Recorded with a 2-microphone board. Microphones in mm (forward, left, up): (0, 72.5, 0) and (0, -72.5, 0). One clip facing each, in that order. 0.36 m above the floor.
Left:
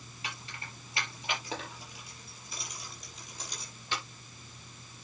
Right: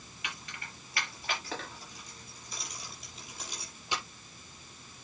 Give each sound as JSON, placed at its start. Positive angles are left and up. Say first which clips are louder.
{"t": 0.2, "sound": "keys jangling", "louder": "left 1 dB", "side_deg": 35, "distance_m": 5.5}